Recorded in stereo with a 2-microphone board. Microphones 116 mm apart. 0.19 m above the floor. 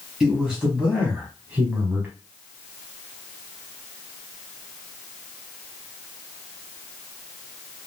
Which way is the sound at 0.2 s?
5° right (ahead or behind).